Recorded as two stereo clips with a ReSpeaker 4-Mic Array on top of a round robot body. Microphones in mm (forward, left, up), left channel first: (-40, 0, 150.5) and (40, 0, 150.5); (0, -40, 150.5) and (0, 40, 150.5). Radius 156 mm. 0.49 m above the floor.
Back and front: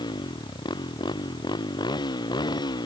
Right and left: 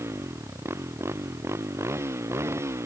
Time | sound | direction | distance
0.0 | a motorcycle | 150° left | ?